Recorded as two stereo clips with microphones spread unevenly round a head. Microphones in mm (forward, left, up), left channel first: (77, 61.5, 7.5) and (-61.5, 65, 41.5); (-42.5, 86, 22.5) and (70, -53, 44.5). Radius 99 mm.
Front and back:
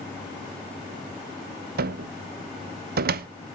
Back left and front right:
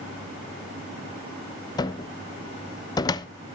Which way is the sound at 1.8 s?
170° right.